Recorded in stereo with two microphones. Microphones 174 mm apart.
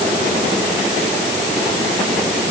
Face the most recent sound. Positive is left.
No sound to turn to.